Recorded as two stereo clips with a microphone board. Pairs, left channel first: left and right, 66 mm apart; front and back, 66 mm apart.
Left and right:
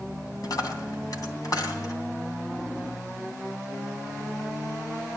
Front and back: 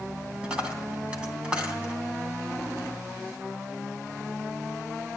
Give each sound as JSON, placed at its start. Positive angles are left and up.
{"t": 0.4, "sound": "a dropped coin", "azimuth_deg": 105, "distance_m": 3.0}